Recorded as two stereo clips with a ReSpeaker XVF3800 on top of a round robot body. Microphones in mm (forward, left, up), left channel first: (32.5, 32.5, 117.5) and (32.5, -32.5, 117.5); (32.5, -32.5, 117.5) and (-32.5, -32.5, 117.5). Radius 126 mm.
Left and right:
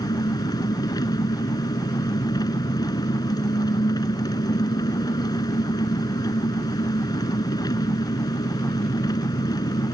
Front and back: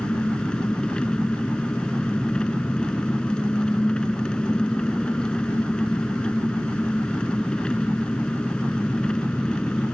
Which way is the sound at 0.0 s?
75° left.